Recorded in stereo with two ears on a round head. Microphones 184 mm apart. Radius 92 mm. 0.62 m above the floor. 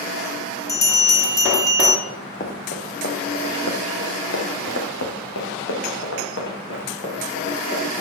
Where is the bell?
15° left (ahead or behind), 1.2 m.